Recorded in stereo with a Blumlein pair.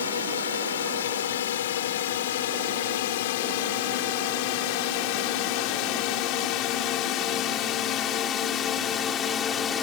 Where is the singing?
No singing in this recording.